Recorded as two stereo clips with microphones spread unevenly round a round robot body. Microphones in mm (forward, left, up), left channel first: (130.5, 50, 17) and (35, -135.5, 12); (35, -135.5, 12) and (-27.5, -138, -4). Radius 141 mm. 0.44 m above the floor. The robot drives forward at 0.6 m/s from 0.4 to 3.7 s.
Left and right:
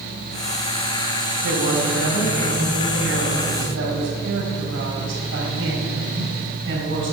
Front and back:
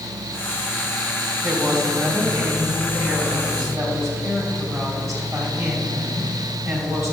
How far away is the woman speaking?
About 2.5 m.